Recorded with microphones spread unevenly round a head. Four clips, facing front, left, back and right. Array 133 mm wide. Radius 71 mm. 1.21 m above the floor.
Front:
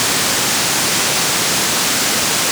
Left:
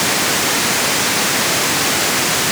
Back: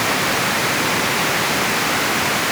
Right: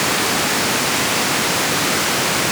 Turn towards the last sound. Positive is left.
No sound to turn to.